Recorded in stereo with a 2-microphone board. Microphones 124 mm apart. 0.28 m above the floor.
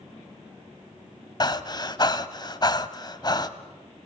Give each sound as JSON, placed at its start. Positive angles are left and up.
{"t": 1.4, "sound": "breathing", "side_deg": 35, "distance_m": 1.0}